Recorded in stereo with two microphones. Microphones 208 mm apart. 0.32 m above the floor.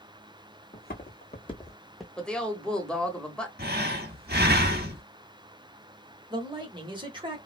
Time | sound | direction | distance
0.7 | footsteps | 50° left (ahead or behind) | 1.2 m
2.2 | a woman speaking | 5° left (ahead or behind) | 0.9 m
3.6 | breathing | 50° right (ahead or behind) | 0.8 m
6.3 | a man speaking | 20° right (ahead or behind) | 0.9 m